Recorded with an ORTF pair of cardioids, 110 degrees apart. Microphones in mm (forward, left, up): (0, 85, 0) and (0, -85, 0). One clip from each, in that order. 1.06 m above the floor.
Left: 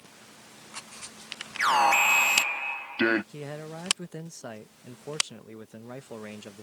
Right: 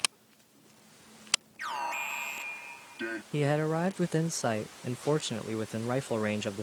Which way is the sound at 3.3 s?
50° right.